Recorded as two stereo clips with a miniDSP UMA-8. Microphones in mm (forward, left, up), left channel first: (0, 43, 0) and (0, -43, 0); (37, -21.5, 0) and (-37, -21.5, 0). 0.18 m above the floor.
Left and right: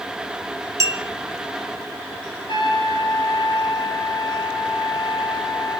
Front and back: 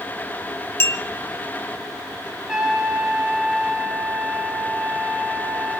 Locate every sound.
0.8 s a clink: 45° right, 1.6 m
2.5 s a trumpet: 105° left, 4 m